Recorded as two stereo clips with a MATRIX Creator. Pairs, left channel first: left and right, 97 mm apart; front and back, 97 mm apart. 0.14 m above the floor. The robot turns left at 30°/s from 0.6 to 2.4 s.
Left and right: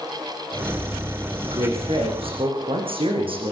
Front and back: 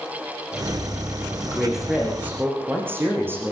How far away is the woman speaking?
About 8 m.